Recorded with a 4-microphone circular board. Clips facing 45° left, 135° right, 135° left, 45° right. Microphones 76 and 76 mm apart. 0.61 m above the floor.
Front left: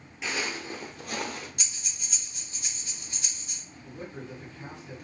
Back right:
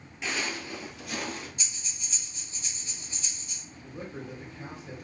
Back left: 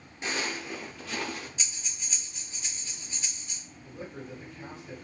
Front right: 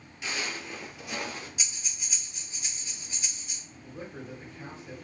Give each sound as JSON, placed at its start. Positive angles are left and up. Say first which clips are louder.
{"t": 0.2, "sound": "footsteps", "louder": "even, back left 2 dB", "azimuth_deg": 130, "distance_m": 0.7}
{"t": 1.6, "sound": "breathing", "louder": "front left 1 dB, even", "azimuth_deg": 35, "distance_m": 0.9}
{"t": 3.8, "sound": "a man speaking", "louder": "back right 1 dB, even", "azimuth_deg": -105, "distance_m": 1.7}